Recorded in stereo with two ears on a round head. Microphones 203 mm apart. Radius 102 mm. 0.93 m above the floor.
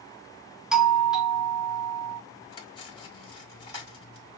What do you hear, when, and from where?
0.7 s a doorbell: centre (ahead or behind), 0.7 m
2.5 s cutlery clinking: 25° left (ahead or behind), 1.4 m